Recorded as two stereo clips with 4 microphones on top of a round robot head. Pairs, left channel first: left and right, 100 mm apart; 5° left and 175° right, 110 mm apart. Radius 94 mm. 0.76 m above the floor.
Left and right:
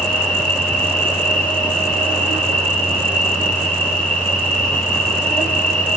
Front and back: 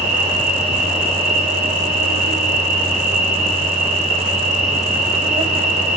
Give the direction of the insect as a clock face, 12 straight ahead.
6 o'clock.